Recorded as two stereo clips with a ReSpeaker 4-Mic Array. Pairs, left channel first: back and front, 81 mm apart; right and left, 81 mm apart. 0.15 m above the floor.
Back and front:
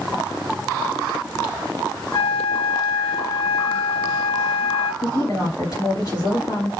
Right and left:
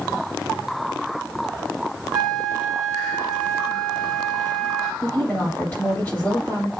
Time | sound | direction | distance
2.1 | a flute | 170° left | 2.5 m
5.0 | a woman speaking | 155° right | 2.5 m